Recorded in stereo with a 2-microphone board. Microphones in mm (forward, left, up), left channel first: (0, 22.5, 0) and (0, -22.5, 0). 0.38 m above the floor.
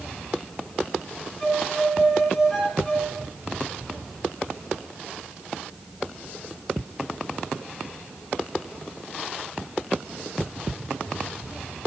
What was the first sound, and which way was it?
A violin, 35° left (ahead or behind).